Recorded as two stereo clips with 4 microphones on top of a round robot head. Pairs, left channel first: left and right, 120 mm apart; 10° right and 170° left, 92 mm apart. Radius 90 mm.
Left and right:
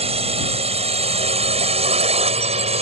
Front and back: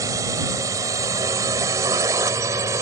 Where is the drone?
125° right.